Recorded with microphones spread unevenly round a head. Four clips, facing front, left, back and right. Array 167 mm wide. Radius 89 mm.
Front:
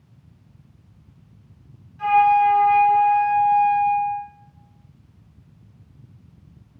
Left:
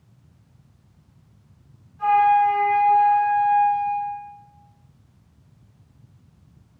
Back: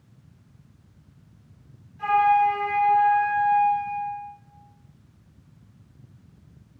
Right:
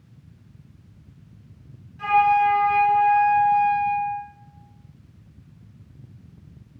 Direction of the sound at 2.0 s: 45° right.